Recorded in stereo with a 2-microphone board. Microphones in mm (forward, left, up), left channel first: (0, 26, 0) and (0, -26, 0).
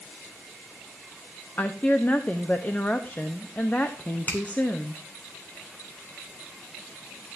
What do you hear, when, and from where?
1.6 s a woman speaking: 35° left (ahead or behind), 1.0 m
4.3 s a finger snap: 35° left (ahead or behind), 3 m